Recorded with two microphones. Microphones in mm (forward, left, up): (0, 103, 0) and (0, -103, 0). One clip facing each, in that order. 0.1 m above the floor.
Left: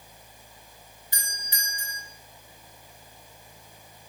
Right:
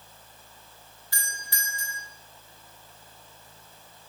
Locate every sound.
1.1 s a doorbell: 20° left (ahead or behind), 2.0 m